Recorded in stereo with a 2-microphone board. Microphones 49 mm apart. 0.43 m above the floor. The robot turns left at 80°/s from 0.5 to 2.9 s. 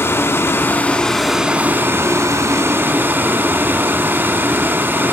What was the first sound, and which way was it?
Running water, 60° left.